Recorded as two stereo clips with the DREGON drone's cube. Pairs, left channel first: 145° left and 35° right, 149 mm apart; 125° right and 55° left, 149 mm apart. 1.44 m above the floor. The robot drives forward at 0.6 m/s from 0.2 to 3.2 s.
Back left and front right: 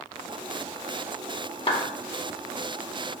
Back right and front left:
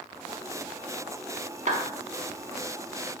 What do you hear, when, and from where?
1.7 s a clap: 90° left, 1.5 m; by 1.9 s 95° left, 1.5 m